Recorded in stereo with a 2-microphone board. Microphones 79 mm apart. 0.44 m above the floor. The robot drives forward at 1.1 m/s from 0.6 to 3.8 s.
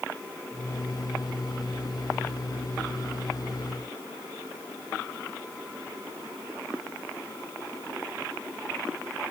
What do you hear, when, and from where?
Only background noise.